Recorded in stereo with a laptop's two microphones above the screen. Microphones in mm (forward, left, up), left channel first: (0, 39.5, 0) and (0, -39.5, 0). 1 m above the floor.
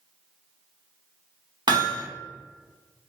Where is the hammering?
75° right (ahead or behind), 0.8 m.